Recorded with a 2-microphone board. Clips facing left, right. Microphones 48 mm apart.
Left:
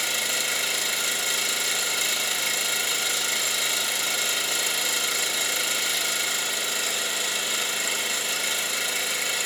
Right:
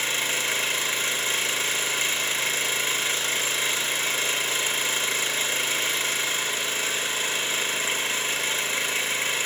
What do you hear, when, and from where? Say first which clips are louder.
0.0 s an engine running: right 1 dB; 40° right (ahead or behind), 4 m